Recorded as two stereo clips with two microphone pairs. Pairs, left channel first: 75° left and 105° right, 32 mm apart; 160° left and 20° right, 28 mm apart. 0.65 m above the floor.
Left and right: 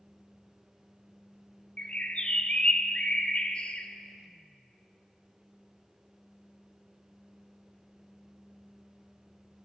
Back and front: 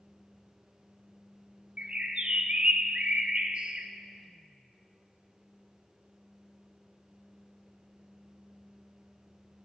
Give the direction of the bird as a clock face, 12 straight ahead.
11 o'clock.